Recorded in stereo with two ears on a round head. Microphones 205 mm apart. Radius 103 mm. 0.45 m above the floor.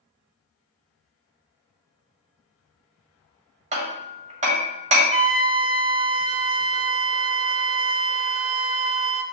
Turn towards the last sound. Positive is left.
turn(degrees=-15)  # may be behind; listen again after turning